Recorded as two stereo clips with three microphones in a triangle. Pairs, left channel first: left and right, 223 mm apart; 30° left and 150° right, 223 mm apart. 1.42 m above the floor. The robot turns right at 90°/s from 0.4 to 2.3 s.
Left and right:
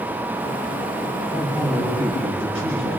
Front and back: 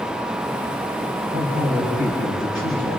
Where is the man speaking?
145° left, 6 m; by 3.0 s 125° right, 6 m.